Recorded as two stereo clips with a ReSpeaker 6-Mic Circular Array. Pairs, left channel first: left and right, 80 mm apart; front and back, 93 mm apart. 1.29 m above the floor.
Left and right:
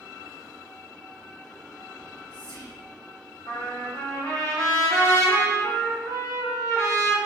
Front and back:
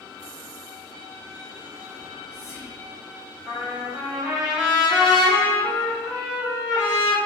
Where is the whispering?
115° left, 0.8 m.